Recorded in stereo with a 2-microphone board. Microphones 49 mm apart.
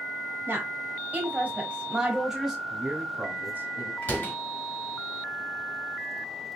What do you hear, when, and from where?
0.5 s a woman speaking: 40° right (ahead or behind), 1.4 m; by 2.6 s centre (ahead or behind), 1.3 m
2.7 s a man speaking: 35° right (ahead or behind), 1.4 m
4.0 s a door slam: 30° left (ahead or behind), 1.6 m